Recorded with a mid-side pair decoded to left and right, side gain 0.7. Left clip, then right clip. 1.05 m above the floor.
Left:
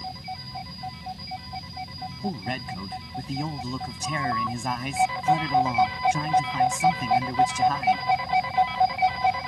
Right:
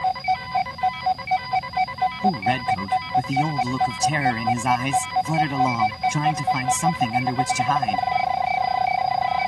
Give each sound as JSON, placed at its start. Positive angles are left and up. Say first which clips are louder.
{"t": 2.2, "sound": "a man speaking", "louder": "right 8 dB", "azimuth_deg": -30}